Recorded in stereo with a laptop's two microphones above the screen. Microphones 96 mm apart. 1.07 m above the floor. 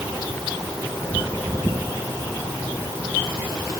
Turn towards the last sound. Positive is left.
No sound to turn to.